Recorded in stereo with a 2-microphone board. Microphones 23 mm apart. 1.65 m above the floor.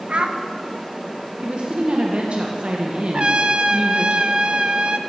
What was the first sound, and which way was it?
A child speaking, 50° right (ahead or behind).